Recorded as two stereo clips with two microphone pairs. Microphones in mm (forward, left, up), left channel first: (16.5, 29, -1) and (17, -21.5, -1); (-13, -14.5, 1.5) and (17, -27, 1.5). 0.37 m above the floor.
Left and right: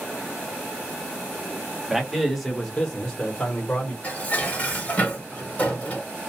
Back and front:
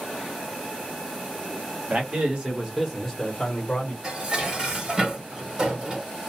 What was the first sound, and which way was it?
A man speaking, 10° right.